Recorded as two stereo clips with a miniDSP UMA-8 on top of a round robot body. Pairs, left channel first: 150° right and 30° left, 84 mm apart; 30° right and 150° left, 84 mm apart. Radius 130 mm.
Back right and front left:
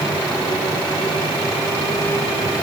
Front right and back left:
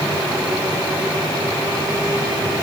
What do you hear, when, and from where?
Only background noise.